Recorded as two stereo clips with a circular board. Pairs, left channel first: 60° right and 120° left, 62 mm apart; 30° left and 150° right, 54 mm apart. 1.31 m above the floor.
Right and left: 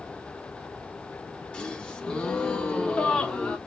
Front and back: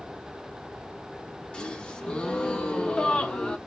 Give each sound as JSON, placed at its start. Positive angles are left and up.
{"t": 1.5, "sound": "a gasp", "azimuth_deg": -15, "distance_m": 0.9}